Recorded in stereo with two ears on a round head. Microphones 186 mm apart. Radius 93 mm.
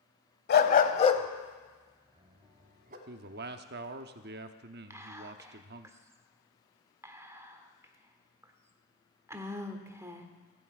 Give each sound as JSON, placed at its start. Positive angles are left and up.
{"t": 0.5, "sound": "a dog barking", "side_deg": 50, "distance_m": 1.0}
{"t": 3.1, "sound": "a man speaking", "side_deg": -50, "distance_m": 0.8}
{"t": 4.9, "sound": "whispering", "side_deg": -15, "distance_m": 1.3}